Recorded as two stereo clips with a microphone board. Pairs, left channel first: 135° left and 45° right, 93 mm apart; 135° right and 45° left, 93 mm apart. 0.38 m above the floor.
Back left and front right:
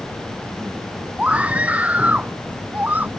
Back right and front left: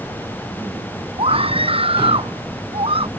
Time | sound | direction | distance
1.2 | a scream | 30° left | ?